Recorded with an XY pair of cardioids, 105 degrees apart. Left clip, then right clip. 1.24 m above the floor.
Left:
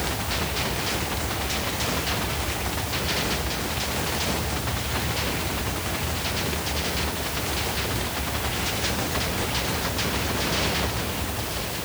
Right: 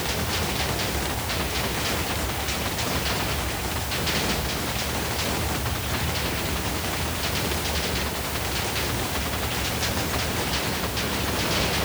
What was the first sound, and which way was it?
Only background noise.